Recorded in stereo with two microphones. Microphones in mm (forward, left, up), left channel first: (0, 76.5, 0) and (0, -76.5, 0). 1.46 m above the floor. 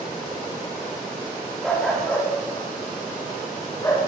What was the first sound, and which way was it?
A dog barking, centre (ahead or behind).